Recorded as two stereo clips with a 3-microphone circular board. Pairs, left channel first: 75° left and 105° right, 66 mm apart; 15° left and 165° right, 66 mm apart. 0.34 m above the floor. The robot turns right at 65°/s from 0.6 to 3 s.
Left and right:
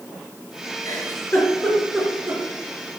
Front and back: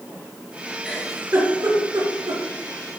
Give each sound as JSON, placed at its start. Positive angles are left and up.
{"t": 0.8, "sound": "a giggle", "azimuth_deg": 105, "distance_m": 4.5}